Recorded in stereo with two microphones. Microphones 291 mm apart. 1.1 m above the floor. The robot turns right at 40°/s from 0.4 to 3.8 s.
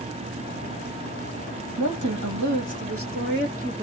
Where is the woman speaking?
100° right, 1.5 m; by 3.9 s 15° right, 1.5 m.